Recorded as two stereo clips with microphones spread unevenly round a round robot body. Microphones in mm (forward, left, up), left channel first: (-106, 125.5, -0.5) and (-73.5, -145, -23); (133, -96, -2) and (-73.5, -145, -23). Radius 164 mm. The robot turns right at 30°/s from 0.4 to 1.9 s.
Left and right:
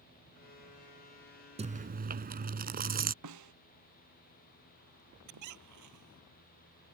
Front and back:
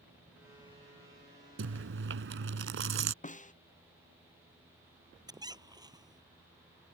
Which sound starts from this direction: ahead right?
A snare drum, at 3.2 s.